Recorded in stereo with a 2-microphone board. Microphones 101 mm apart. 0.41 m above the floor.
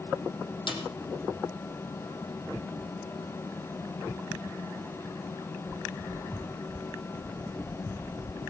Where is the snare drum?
50° left (ahead or behind), 4 m.